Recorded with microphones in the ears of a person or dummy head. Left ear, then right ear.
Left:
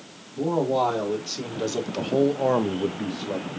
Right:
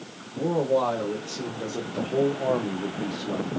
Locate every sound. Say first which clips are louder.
0.4 s a man speaking: left 1 dB; 45° left (ahead or behind), 2 m; by 3.5 s 15° left (ahead or behind), 0.7 m